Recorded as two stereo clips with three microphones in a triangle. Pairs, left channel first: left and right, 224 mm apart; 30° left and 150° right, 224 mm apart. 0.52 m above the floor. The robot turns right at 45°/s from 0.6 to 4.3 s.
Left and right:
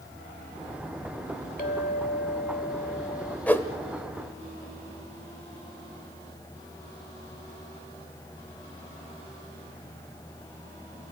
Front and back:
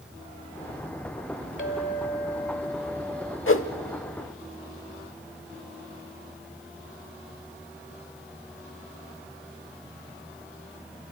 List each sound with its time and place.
1.6 s a clink: 50° left, 1.8 m; by 3.4 s 130° left, 1.8 m
3.5 s a whoosh: 5° left, 1.0 m; by 3.7 s 20° left, 1.0 m